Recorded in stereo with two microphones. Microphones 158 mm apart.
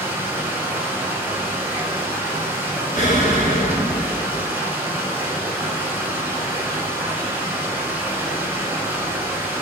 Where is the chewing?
No chewing in this recording.